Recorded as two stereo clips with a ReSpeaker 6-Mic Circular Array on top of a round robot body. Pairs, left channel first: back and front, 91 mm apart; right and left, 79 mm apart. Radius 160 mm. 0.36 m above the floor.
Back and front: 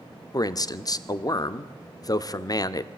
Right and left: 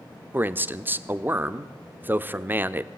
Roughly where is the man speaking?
Behind left.